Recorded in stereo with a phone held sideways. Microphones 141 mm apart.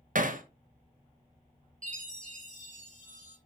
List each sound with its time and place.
0.1 s hammering: 65° right (ahead or behind), 0.9 m
1.8 s a chime: 65° right (ahead or behind), 3 m